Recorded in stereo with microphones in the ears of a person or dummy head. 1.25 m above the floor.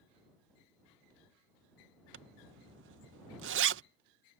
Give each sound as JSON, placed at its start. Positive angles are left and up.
{"t": 2.1, "sound": "a zipper", "side_deg": -60}